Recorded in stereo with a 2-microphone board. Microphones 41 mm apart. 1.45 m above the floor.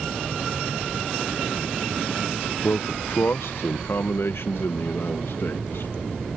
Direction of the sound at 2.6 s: 70° left (ahead or behind).